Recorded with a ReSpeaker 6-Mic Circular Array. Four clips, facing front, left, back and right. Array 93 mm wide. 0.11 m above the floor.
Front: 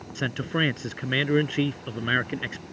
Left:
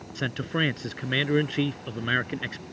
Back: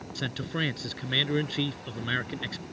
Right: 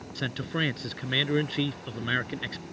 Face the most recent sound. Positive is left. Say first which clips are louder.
# left 3 dB, front 6 dB
turn(degrees=25)